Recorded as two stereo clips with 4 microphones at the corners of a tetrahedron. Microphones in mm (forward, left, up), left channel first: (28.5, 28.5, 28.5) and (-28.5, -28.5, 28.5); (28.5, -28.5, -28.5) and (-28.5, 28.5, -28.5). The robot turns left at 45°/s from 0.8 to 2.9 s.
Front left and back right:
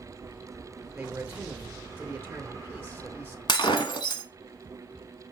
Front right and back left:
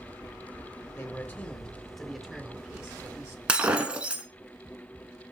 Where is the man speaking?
70° right, 0.9 m; by 3.4 s 160° right, 0.9 m.